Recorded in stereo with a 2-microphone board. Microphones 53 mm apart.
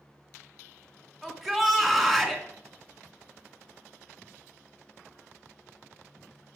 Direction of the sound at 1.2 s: Centre (ahead or behind).